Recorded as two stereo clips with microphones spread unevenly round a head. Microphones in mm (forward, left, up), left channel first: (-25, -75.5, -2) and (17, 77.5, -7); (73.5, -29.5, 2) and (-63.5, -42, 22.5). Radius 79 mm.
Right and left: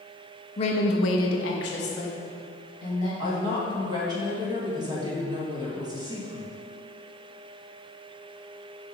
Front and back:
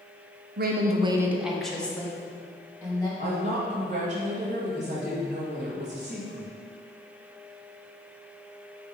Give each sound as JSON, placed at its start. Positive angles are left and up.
{"t": 0.6, "sound": "a woman speaking", "azimuth_deg": -165, "distance_m": 0.7}
{"t": 3.2, "sound": "a woman speaking", "azimuth_deg": 140, "distance_m": 1.6}